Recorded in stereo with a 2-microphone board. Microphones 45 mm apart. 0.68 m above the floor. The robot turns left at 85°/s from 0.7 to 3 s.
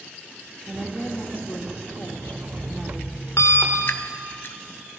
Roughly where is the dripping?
Left.